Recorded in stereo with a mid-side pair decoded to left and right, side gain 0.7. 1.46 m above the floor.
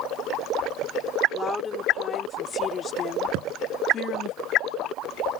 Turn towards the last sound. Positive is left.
turn(degrees=-65)